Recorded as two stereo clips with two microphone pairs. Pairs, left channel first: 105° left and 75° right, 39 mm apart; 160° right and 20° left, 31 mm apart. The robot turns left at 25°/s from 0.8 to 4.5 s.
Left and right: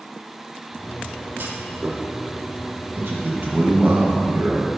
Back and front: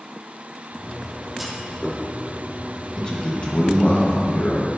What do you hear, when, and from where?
1.4 s a clunk: 60° right, 0.7 m; by 2.0 s 75° right, 0.7 m
3.0 s a man speaking: 95° right, 1.4 m; by 4.7 s 130° right, 1.4 m